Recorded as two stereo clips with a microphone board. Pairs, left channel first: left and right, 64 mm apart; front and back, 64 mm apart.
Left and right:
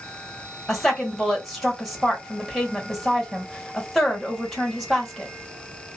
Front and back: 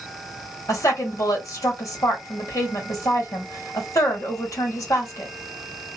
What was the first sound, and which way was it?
A woman speaking, straight ahead.